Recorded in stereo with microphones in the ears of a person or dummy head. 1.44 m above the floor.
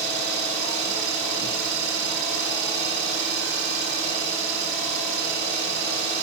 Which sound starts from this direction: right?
An engine running, at 0.0 s.